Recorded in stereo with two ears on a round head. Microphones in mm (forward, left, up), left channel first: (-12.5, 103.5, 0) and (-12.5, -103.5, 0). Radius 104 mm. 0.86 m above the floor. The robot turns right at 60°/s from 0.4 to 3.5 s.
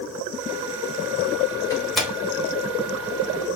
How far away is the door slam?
About 3.5 m.